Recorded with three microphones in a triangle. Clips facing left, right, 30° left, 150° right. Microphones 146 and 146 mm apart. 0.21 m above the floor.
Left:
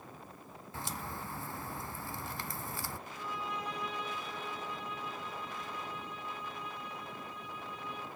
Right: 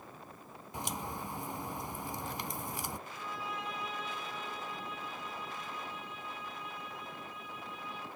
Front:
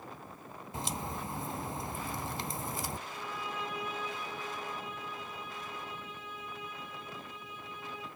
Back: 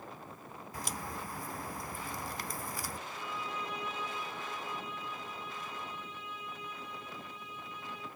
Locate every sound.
0.7 s a crack: 25° right, 0.6 m
3.1 s a violin: 5° right, 8.5 m